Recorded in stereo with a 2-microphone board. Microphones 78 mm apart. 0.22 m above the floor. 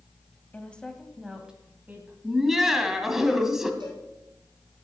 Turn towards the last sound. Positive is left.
turn(degrees=-75)  # may be behind; listen again after turning